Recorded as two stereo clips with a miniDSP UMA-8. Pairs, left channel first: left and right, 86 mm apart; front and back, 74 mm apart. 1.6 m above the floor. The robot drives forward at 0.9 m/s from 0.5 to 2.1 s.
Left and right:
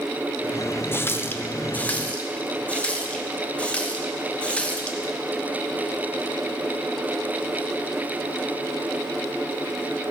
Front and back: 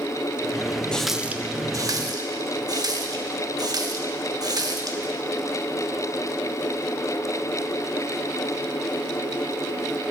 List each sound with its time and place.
0.9 s a running tap: 65° left, 0.6 m; by 5.1 s 165° left, 1.1 m